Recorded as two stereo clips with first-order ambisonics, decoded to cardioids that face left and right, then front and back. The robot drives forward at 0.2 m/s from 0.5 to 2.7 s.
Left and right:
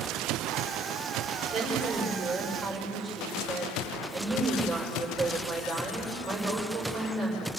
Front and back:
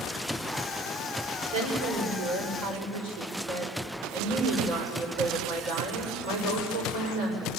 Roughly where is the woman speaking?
Behind.